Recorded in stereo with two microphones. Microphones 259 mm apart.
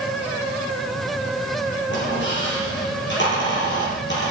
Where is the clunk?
I don't hear a clunk.